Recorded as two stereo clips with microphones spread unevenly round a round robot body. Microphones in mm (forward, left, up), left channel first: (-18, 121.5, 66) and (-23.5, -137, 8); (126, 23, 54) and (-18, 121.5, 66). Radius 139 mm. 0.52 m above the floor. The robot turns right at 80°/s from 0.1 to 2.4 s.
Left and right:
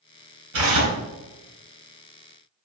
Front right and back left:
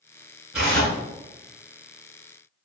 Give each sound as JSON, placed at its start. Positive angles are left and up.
{"t": 0.5, "sound": "tearing paper", "azimuth_deg": -130, "distance_m": 3.0}